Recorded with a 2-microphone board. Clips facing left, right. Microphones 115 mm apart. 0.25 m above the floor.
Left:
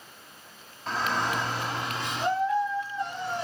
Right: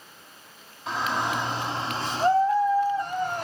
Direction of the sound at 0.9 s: Centre (ahead or behind).